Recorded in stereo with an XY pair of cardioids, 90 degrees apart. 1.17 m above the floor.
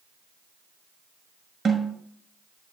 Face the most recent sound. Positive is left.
turn(degrees=-45)